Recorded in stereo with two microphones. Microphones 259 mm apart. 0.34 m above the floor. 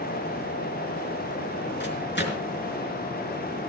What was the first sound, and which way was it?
A microwave, 45° left (ahead or behind).